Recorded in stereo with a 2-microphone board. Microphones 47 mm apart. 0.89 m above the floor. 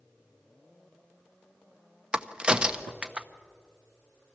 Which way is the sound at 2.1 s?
20° right (ahead or behind).